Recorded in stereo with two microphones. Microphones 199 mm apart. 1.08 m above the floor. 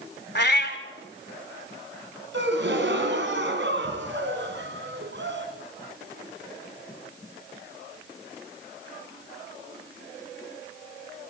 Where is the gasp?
70° right (ahead or behind), 3 m.